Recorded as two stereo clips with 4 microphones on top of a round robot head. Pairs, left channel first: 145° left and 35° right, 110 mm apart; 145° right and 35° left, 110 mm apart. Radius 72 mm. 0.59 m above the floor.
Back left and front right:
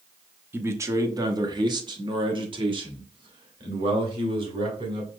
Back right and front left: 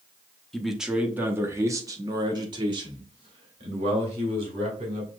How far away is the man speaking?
About 0.9 m.